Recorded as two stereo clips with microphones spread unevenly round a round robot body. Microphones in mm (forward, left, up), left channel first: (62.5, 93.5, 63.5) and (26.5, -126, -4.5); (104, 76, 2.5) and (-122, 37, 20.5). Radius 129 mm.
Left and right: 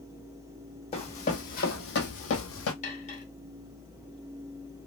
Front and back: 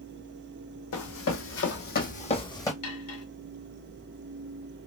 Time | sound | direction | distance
0.9 | running footsteps | 25° left | 1.0 m
2.8 | cutlery clinking | 15° left | 1.1 m